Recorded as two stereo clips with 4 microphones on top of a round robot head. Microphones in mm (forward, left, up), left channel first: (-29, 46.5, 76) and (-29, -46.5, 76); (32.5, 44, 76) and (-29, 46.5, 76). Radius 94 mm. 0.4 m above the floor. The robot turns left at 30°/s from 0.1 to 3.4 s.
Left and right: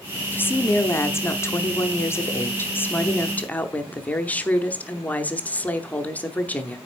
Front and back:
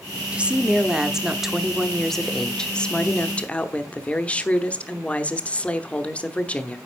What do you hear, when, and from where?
0.3 s a woman speaking: 130° left, 0.9 m; by 6.8 s 35° left, 0.9 m